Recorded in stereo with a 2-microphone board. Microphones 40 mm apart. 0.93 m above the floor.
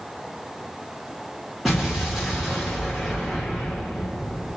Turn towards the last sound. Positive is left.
turn(degrees=-5)  # may be behind; listen again after turning